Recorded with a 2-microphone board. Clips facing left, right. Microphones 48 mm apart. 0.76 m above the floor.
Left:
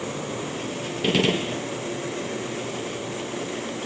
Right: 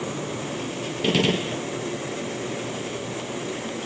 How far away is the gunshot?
About 0.8 m.